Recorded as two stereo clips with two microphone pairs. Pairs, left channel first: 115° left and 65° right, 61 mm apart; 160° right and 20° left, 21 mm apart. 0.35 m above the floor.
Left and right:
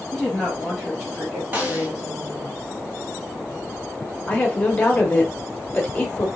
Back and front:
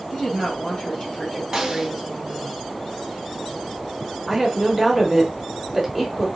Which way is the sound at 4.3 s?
120° left.